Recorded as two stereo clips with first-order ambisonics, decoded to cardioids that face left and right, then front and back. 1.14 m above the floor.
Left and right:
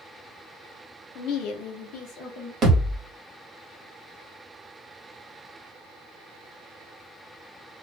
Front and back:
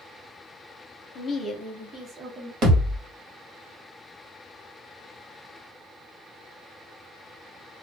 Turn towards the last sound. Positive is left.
turn(degrees=-150)